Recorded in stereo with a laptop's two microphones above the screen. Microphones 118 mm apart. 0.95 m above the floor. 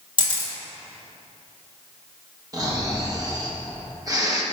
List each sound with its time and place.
0.2 s a camera shutter: 45° right (ahead or behind), 1.3 m
2.5 s snoring: 30° right (ahead or behind), 0.9 m